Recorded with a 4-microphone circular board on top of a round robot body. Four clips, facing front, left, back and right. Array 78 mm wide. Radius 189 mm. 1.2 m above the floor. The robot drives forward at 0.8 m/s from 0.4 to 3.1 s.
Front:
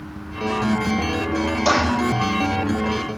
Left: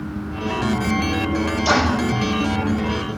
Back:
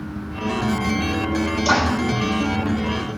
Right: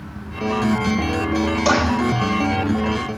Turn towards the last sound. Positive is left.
turn(degrees=-60)